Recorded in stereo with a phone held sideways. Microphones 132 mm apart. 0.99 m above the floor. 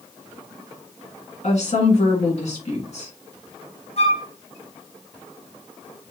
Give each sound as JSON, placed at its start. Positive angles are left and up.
{"t": 1.4, "sound": "a woman speaking", "side_deg": 55, "distance_m": 1.9}
{"t": 4.0, "sound": "a flute", "side_deg": 50, "distance_m": 0.8}